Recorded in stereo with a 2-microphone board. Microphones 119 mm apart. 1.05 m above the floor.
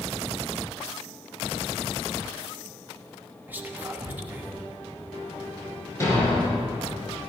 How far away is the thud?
About 5 m.